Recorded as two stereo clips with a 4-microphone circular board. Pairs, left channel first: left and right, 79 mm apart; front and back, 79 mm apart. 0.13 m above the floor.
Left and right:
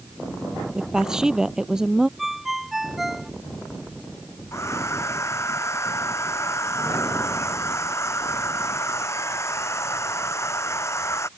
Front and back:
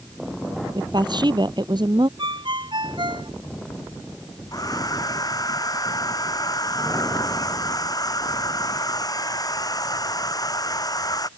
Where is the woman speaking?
170° right.